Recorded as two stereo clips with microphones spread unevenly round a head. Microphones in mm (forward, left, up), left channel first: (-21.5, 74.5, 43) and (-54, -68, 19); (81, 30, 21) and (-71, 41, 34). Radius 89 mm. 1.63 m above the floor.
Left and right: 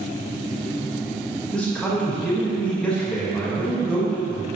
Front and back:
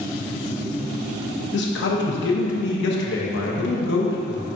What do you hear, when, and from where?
1.5 s a man speaking: 5° right, 1.2 m